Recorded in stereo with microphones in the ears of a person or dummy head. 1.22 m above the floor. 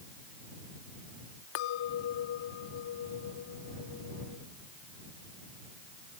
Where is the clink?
65° left (ahead or behind).